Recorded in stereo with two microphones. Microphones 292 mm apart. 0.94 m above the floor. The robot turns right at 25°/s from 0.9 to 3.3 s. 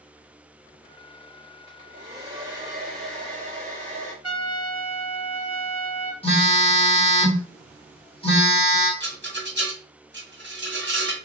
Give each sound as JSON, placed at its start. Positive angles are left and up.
{"t": 1.7, "sound": "a hair dryer", "azimuth_deg": -35, "distance_m": 1.9}
{"t": 4.2, "sound": "a trumpet", "side_deg": -60, "distance_m": 0.9}
{"t": 6.2, "sound": "a phone buzzing", "side_deg": 20, "distance_m": 1.8}
{"t": 9.0, "sound": "a rattle", "side_deg": -40, "distance_m": 1.4}